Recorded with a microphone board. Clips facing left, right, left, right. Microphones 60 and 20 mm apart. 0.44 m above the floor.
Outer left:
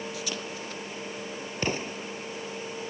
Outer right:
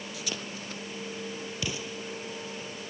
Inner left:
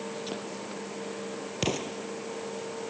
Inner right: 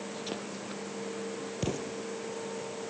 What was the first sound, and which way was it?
An explosion, 45° left (ahead or behind).